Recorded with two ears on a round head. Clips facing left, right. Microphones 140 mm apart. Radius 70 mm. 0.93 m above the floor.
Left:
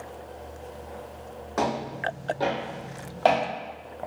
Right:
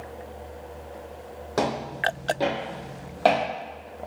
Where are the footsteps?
35° right (ahead or behind), 2.0 m; by 3.4 s 5° right (ahead or behind), 1.5 m.